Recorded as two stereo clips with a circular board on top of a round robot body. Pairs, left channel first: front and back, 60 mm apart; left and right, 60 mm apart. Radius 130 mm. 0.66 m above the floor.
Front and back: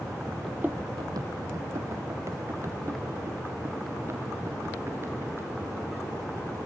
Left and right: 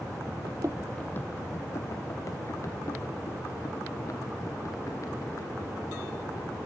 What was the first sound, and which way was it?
Running footsteps, 90° right.